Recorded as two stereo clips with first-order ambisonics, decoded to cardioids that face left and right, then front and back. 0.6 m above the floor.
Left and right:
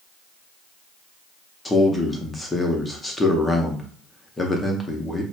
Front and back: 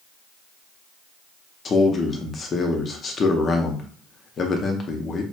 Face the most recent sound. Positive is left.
turn(degrees=25)